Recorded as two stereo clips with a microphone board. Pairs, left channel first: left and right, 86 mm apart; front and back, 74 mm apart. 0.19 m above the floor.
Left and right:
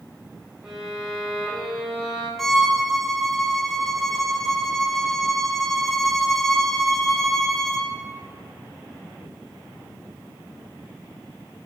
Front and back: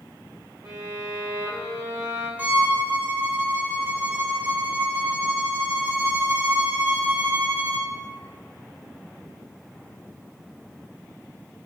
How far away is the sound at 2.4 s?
About 0.6 m.